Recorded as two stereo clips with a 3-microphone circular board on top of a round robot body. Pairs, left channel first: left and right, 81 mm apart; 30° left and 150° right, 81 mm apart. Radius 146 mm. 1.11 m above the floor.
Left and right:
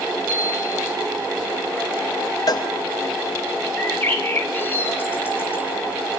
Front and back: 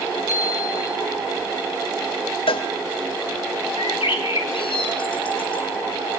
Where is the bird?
25° left, 3 m.